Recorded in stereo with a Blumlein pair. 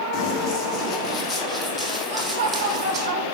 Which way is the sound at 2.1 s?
45° right.